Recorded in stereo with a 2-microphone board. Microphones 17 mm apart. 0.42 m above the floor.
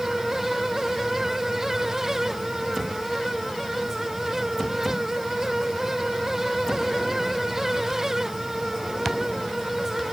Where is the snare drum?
I don't hear a snare drum.